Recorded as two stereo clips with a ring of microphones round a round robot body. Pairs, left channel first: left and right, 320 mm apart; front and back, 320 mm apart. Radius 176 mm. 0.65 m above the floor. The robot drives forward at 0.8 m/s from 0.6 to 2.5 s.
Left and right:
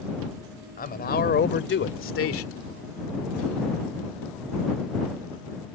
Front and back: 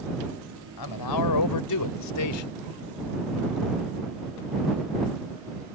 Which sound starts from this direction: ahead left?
A man speaking, at 0.8 s.